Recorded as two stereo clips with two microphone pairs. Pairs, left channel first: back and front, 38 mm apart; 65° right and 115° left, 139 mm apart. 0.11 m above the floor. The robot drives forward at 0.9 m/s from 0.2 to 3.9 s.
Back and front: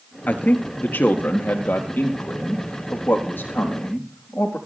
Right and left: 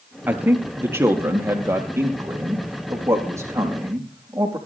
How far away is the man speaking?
About 1.5 m.